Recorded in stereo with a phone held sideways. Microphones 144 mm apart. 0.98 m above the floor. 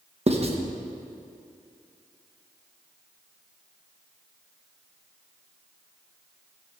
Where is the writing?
45° right (ahead or behind), 0.8 m.